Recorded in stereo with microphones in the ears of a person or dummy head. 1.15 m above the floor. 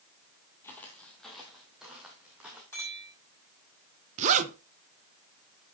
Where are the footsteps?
5° left (ahead or behind), 1.5 m; by 2.6 s 15° right (ahead or behind), 3.5 m.